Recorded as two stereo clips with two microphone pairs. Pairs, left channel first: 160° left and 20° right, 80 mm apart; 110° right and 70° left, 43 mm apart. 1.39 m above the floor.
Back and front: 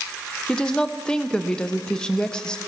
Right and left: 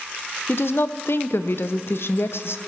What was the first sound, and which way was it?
A woman speaking, 125° right.